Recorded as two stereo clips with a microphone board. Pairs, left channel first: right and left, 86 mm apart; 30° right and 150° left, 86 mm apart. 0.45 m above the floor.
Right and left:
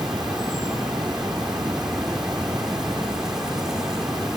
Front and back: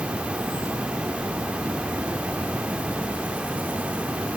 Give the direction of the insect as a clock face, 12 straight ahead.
7 o'clock.